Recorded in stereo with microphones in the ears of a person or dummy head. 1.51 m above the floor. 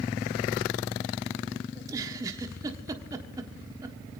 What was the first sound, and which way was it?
A giggle, 20° right (ahead or behind).